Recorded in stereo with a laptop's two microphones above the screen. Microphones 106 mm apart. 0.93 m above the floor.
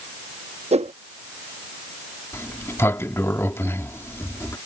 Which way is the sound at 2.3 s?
25° left (ahead or behind).